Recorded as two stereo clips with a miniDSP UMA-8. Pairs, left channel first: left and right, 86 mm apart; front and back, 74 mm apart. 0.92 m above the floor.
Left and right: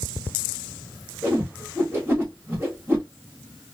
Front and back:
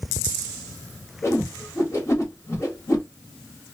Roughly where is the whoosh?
Ahead right.